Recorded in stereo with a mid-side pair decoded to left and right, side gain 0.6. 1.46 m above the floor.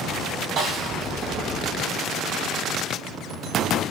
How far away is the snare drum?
About 3.5 m.